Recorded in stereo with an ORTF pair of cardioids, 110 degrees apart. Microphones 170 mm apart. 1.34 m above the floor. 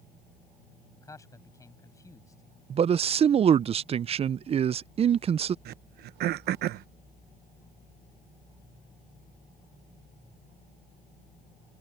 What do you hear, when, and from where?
0.9 s a man speaking: 20° left
2.7 s a man speaking: 35° right
5.7 s throat clearing: 70° right